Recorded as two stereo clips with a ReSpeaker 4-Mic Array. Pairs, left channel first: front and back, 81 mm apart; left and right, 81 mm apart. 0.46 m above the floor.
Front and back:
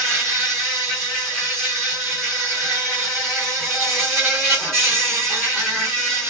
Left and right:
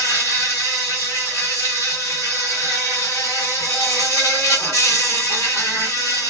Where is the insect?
80° left, 2 m.